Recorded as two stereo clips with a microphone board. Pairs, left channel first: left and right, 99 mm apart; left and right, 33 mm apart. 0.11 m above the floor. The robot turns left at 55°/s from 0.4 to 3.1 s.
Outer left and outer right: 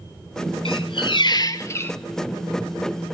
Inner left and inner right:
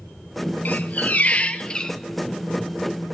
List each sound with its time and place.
0.7 s a squeak: 90° left, 0.5 m; by 2.0 s 20° left, 0.5 m